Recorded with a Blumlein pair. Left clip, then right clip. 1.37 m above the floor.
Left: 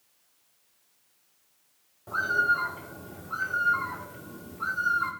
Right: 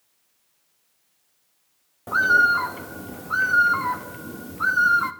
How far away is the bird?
About 0.6 m.